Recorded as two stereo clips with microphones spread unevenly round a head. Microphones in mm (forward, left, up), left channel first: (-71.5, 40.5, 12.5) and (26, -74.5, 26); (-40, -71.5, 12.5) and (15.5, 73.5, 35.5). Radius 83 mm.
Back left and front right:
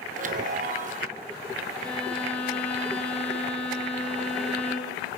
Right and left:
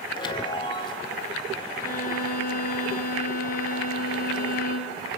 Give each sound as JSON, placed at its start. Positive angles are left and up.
{"t": 0.1, "sound": "a chime", "azimuth_deg": -45, "distance_m": 1.2}
{"t": 1.8, "sound": "a violin", "azimuth_deg": -145, "distance_m": 3.5}